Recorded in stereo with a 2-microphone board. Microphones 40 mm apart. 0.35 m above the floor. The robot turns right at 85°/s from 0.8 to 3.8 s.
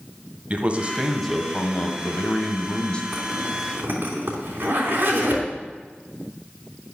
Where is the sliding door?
No sliding door in this recording.